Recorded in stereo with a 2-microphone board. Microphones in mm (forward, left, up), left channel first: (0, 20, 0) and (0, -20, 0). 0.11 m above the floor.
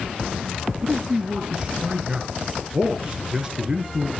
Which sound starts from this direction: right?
A man speaking, at 0.8 s.